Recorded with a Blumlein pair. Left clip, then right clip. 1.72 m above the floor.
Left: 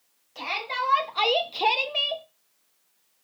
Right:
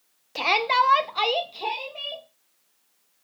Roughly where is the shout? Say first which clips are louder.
Right 8 dB; ahead right.